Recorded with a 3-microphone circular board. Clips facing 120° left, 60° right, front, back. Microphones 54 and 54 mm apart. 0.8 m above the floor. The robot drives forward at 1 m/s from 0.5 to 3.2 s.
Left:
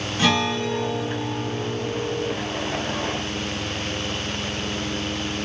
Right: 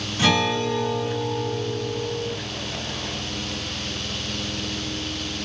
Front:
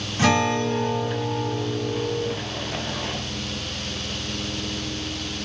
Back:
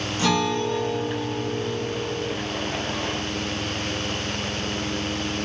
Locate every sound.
0.2 s a guitar: 25° left, 2.5 m; by 2.3 s 70° left, 1.2 m